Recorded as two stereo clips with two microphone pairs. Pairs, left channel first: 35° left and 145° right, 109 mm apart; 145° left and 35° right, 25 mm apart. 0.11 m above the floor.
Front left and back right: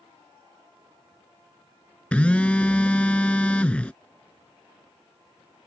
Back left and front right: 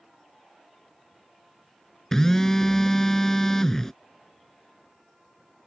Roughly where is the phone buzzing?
Left.